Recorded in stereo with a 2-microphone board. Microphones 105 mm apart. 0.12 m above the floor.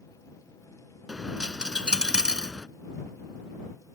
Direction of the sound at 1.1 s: 10° right (ahead or behind).